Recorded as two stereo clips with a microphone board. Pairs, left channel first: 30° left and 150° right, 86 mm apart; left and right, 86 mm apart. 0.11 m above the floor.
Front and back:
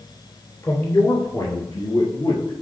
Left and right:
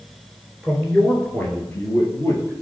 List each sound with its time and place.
0.6 s a man speaking: 5° left, 1.8 m; by 2.5 s 45° left, 2.5 m